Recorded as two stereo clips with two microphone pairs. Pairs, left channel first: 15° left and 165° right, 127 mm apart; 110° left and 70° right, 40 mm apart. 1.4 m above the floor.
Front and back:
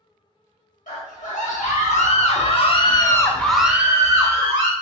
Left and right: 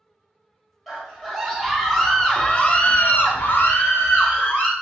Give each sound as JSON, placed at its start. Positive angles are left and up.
{"t": 0.9, "sound": "a scream", "azimuth_deg": 20, "distance_m": 1.5}